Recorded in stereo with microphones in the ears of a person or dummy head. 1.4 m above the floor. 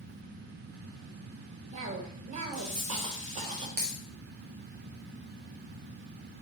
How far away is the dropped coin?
About 1.3 m.